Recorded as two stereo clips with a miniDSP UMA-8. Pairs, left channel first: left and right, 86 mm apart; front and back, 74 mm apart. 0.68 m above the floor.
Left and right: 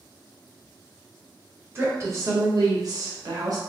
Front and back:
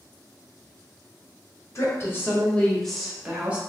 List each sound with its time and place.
1.8 s a woman speaking: 35° right, 1.0 m; by 3.6 s 115° right, 1.0 m